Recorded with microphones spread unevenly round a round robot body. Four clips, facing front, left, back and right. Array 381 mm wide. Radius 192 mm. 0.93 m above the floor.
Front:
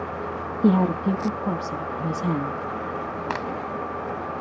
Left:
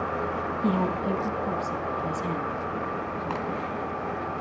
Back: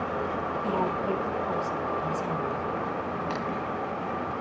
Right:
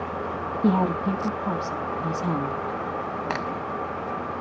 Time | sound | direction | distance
0.6 | a woman speaking | 20° right | 1.5 m
3.3 | a crack | 45° right | 1.4 m